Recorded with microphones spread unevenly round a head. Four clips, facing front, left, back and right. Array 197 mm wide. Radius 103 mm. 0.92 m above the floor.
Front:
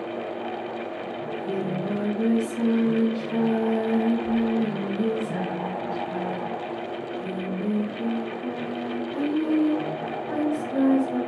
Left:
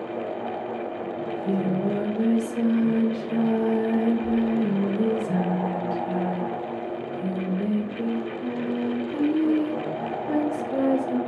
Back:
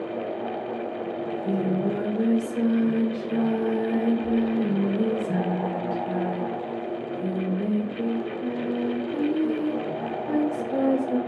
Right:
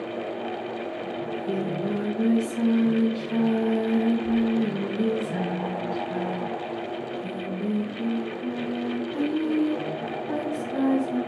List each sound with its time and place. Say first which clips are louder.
1.2 s singing: left 3 dB, back 2 dB; 115° left, 3 m